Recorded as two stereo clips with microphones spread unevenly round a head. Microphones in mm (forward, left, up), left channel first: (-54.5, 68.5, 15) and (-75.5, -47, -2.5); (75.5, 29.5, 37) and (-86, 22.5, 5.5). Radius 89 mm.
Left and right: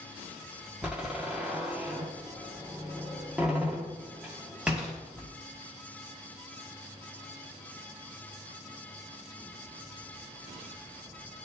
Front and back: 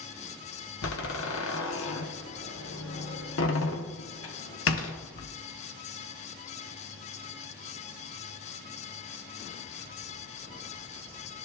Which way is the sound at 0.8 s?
15° right.